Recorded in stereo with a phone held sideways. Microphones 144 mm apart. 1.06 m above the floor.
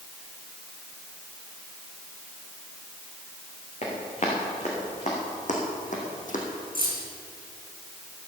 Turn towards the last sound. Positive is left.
turn(degrees=75)  # may be behind; listen again after turning